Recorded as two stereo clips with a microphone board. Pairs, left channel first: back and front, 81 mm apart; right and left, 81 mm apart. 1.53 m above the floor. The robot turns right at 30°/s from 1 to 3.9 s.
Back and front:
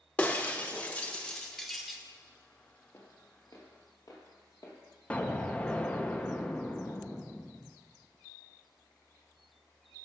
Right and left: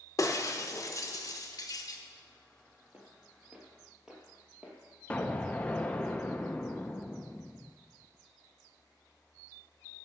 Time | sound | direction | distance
0.2 | breaking glass | 115° right | 0.8 m
2.9 | footsteps | 155° left | 2 m
5.1 | an explosion | 140° right | 0.6 m